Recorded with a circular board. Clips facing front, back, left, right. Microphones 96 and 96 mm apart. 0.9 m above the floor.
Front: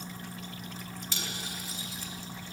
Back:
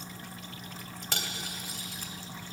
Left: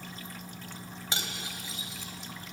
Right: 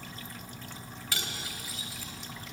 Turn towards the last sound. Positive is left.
turn(degrees=155)